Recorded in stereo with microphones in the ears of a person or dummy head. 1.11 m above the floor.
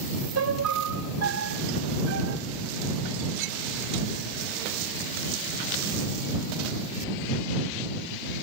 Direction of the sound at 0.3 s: 70° right (ahead or behind).